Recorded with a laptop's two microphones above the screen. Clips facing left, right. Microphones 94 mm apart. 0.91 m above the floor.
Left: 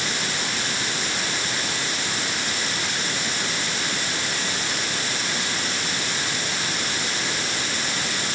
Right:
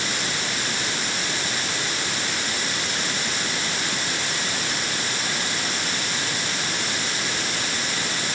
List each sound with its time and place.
Only background noise.